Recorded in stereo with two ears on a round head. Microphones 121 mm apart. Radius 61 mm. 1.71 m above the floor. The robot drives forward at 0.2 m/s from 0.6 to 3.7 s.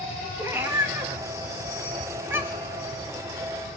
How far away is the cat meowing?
About 1.0 m.